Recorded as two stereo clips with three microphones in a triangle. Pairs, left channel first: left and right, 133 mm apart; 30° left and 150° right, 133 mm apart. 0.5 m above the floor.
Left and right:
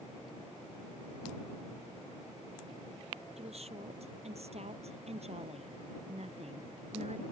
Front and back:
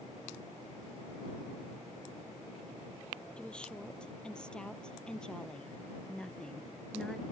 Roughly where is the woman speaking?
Ahead right.